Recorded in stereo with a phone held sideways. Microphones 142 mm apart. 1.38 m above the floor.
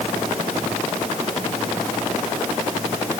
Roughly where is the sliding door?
I don't hear a sliding door.